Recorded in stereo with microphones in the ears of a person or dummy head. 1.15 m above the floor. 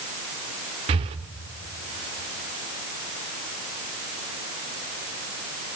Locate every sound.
0.9 s breathing: 35° right (ahead or behind), 0.9 m